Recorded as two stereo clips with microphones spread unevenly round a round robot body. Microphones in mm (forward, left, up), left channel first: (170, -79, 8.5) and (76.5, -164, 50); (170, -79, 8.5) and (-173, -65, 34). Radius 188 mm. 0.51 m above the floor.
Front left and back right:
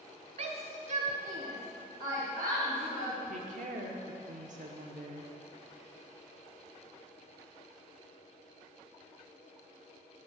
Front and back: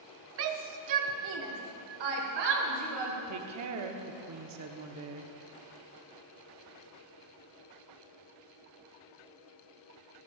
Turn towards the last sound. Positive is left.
turn(degrees=-160)